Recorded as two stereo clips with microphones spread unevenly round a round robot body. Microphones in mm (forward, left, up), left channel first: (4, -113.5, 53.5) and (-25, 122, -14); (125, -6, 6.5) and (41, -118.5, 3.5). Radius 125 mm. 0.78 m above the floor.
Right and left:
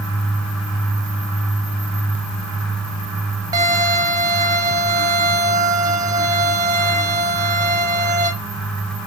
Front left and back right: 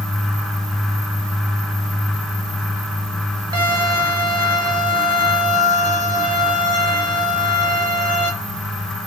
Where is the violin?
175° right, 0.7 m.